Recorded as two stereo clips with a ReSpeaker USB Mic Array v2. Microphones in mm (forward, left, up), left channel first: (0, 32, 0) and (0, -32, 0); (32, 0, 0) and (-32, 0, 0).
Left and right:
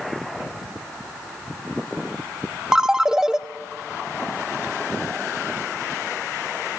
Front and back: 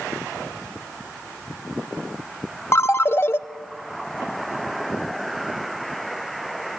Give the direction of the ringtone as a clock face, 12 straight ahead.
1 o'clock.